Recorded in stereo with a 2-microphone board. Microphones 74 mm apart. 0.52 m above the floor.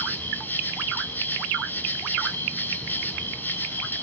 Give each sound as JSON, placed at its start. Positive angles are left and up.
{"t": 0.0, "sound": "an insect", "side_deg": 25, "distance_m": 2.5}